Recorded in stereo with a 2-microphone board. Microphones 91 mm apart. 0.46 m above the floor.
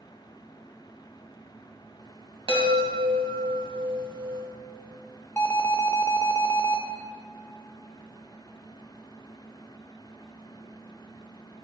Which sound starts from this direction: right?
A chime, at 2.5 s.